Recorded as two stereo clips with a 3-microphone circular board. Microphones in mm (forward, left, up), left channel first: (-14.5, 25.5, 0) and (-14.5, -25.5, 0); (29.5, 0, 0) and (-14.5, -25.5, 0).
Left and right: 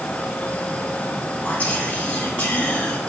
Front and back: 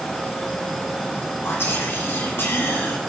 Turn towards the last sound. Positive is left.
turn(degrees=35)